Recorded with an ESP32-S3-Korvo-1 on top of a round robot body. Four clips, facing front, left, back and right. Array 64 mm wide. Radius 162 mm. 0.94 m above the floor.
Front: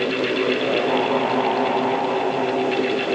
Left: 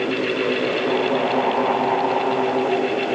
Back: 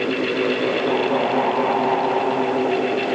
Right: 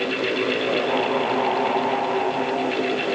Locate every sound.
Only background noise.